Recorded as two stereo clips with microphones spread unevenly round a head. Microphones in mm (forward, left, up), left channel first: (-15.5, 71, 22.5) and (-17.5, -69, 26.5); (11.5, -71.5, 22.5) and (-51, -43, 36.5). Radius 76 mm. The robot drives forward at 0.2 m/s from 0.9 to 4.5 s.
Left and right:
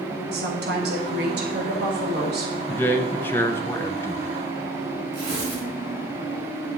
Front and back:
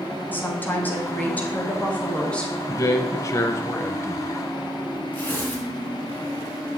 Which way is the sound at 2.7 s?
10° left.